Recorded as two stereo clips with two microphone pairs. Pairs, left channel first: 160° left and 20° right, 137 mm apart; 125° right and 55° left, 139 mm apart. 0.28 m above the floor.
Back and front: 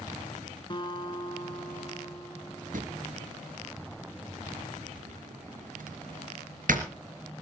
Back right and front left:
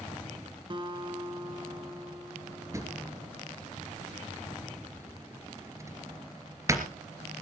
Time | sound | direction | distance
0.7 | a guitar | 110° left | 1.5 m
2.7 | a drawer | 15° right | 1.9 m